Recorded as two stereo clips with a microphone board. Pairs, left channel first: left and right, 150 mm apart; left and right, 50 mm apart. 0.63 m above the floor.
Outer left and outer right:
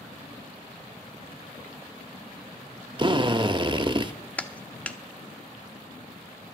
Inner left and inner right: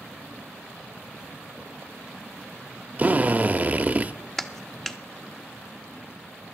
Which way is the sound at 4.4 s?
10° left (ahead or behind).